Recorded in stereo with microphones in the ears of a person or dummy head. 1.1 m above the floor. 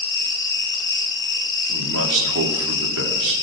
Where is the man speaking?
75° right (ahead or behind), 2.5 m.